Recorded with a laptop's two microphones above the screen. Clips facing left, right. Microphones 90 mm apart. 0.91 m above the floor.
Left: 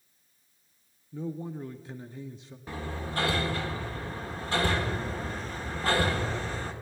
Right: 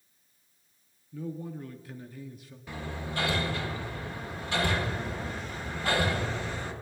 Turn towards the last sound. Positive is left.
turn(degrees=35)  # may be behind; listen again after turning